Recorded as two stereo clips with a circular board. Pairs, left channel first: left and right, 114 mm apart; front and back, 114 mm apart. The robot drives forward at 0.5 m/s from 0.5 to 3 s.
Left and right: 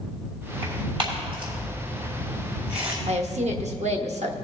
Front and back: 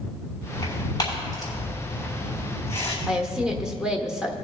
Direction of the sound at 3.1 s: 95° right.